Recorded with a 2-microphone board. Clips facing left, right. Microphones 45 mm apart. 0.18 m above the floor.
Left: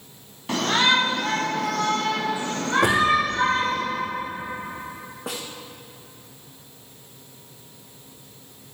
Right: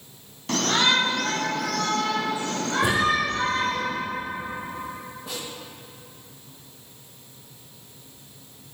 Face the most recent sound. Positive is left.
turn(degrees=85)